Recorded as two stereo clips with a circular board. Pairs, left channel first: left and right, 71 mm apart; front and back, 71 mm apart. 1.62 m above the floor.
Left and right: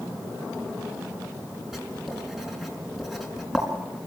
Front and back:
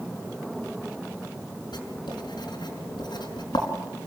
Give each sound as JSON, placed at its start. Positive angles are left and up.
{"t": 1.7, "sound": "writing", "azimuth_deg": -5, "distance_m": 5.0}